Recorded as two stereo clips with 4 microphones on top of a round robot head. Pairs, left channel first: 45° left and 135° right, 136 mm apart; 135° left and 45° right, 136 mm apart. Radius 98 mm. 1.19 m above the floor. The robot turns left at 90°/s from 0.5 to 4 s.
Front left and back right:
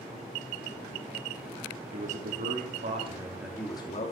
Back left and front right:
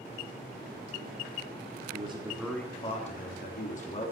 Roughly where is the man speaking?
Right.